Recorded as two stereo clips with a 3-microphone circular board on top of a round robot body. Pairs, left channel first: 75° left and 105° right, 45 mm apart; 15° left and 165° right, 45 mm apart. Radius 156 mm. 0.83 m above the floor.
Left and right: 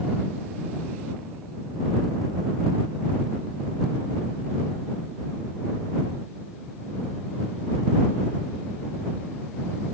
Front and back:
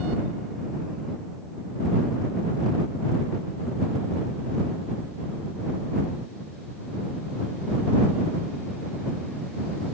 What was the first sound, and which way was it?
Only background noise.